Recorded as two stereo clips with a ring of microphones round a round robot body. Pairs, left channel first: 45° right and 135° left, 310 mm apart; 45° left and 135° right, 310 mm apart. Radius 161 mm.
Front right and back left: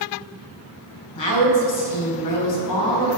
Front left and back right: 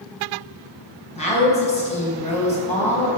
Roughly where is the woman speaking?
Ahead right.